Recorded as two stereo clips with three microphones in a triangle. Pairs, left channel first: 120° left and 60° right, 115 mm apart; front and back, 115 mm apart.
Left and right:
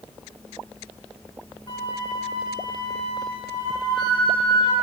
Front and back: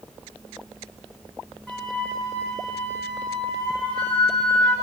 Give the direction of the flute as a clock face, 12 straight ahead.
9 o'clock.